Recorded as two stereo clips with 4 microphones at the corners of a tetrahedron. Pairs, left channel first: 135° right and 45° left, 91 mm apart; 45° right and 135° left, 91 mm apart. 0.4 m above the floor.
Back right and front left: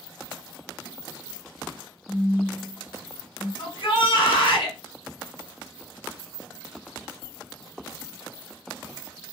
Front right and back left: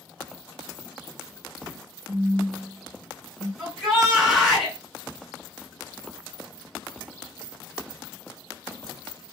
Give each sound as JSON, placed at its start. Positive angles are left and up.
{"t": 2.1, "sound": "a phone buzzing", "azimuth_deg": 135, "distance_m": 0.6}
{"t": 3.6, "sound": "a shout", "azimuth_deg": -140, "distance_m": 1.8}